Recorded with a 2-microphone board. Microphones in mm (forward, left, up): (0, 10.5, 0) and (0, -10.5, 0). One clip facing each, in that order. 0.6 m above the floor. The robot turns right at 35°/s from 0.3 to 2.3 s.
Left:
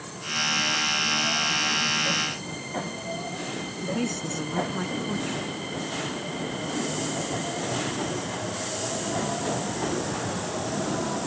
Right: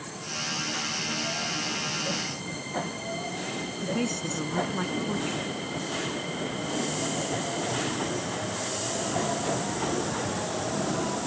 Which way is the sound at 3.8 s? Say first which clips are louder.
Left 1 dB; centre (ahead or behind).